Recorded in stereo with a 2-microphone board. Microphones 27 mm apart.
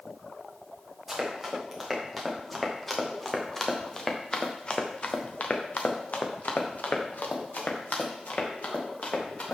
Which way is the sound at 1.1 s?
10° right (ahead or behind).